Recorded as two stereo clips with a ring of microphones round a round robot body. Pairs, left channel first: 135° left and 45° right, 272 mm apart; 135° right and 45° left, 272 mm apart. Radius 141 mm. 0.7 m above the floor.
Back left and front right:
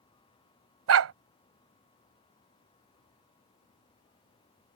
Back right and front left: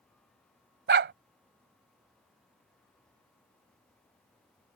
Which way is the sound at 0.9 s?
5° right.